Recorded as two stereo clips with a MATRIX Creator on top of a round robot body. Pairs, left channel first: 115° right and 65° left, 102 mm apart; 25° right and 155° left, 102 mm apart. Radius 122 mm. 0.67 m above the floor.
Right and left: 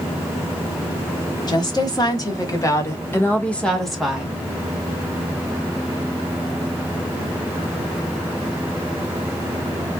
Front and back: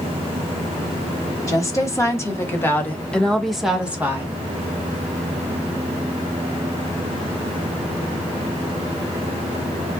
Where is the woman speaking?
75° right, 1.7 m; by 4.3 s 130° left, 1.0 m.